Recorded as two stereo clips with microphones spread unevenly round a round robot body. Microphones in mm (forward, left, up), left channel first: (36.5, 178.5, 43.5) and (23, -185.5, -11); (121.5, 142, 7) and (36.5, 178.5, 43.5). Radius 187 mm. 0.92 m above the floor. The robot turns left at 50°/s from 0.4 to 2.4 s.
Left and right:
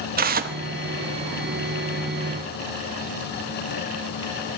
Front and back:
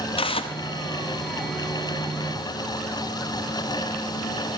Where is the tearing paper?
25° right, 0.5 m; by 0.6 s 35° right, 0.5 m.